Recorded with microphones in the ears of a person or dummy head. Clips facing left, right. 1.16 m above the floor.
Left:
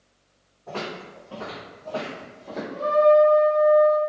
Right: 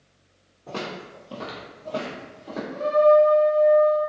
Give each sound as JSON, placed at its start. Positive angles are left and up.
{"t": 0.7, "sound": "footsteps", "side_deg": -30, "distance_m": 1.3}
{"t": 2.7, "sound": "a trumpet", "side_deg": -20, "distance_m": 0.6}